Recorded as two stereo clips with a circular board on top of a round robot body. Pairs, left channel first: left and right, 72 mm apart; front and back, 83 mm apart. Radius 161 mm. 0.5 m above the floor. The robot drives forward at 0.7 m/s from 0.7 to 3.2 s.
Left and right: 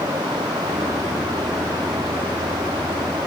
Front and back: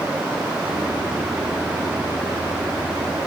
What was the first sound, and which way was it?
Only background noise.